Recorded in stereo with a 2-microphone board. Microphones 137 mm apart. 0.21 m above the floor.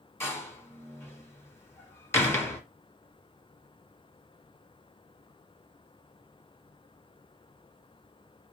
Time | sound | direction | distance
0.2 | a door slam | 20° left (ahead or behind) | 1.4 m